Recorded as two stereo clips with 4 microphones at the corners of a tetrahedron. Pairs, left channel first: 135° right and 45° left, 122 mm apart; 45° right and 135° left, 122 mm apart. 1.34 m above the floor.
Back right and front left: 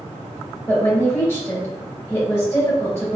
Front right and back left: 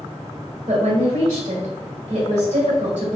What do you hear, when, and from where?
0.7 s a woman speaking: 155° left, 1.9 m